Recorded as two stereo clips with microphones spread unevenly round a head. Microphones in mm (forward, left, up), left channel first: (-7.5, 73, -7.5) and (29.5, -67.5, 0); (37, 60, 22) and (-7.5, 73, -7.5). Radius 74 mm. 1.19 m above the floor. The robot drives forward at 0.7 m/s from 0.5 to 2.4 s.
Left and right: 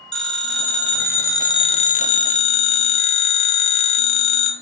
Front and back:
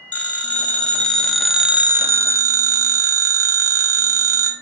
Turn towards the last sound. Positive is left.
turn(degrees=140)